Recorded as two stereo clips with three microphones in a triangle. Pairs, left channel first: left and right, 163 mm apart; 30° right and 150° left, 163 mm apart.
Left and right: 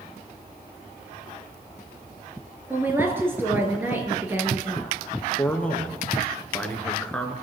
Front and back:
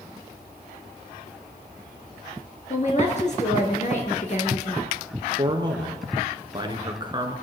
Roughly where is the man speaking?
Behind.